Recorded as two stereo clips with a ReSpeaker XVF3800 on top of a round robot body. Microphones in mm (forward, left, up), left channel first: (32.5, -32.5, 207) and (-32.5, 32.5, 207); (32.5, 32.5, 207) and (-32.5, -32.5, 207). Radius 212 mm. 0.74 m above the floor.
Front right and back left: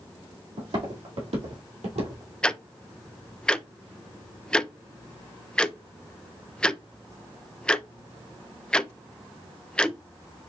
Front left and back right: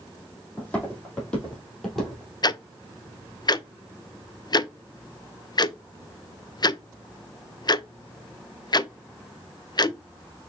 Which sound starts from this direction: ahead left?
Ticking, at 2.4 s.